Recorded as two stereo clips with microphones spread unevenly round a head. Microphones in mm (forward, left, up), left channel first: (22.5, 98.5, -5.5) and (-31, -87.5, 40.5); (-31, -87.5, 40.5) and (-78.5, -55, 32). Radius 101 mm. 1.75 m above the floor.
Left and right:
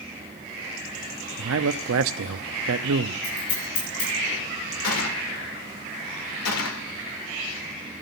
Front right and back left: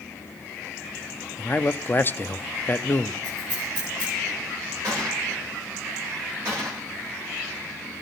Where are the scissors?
65° left, 9 m.